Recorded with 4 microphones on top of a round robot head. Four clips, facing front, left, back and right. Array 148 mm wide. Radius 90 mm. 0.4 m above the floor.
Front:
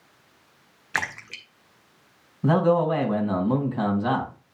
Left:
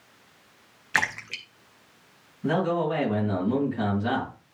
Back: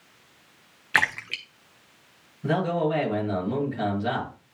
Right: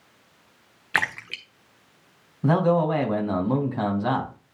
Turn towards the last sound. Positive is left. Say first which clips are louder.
# right 4 dB, front 5 dB
turn(degrees=-50)